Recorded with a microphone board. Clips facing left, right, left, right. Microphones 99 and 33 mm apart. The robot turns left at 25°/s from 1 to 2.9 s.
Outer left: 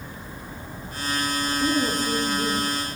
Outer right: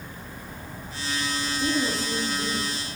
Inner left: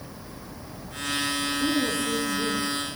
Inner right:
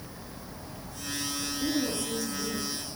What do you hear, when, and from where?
1.6 s a woman speaking: 10° left (ahead or behind), 7.5 m; by 2.7 s 35° left (ahead or behind), 7.5 m